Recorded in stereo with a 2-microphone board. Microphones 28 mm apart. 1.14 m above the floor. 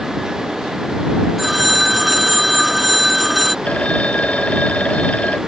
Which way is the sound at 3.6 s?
50° left (ahead or behind).